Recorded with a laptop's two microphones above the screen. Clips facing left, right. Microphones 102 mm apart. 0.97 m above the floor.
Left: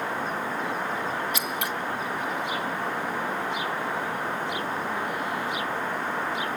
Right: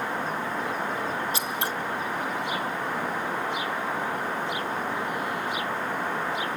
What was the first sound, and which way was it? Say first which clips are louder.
Scissors: even; 35° right (ahead or behind).